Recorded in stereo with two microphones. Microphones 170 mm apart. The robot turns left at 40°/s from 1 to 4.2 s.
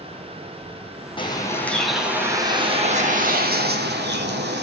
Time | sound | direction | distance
1.2 | a bird | 30° left | 2.5 m